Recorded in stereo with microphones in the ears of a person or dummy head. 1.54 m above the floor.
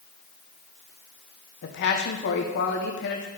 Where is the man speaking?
60° left (ahead or behind), 1.3 m.